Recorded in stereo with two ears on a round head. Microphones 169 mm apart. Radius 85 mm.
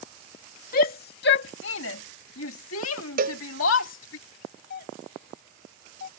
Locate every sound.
0.7 s a shout: 50° left (ahead or behind); by 4.2 s 70° left (ahead or behind)
3.2 s a cowbell: 50° right (ahead or behind)
4.7 s a doorbell: 50° left (ahead or behind)